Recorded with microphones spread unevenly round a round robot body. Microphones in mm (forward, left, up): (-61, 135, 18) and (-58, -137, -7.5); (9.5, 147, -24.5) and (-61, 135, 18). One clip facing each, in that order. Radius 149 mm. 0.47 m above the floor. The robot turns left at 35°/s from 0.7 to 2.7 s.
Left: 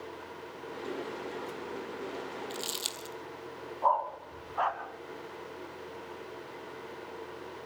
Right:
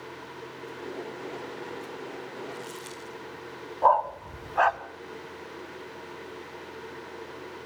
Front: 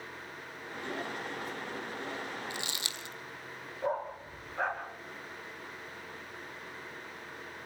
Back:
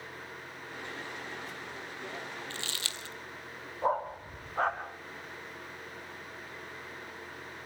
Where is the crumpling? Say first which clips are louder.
Right 1 dB, front 1 dB; 90° left, 2.5 m; by 3.1 s 80° left, 2.5 m.